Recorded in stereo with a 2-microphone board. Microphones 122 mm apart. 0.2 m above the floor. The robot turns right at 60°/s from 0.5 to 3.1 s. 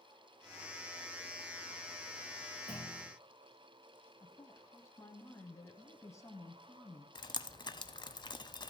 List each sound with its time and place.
2.7 s a clunk: 70° right (ahead or behind), 6 m; by 3.1 s 75° right (ahead or behind), 6 m
4.2 s a woman speaking: 25° left (ahead or behind), 1.1 m
7.2 s dripping: 40° left (ahead or behind), 0.6 m